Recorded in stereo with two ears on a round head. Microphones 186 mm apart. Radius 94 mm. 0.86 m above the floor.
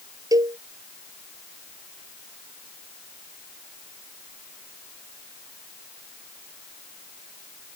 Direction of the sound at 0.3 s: 15° right (ahead or behind).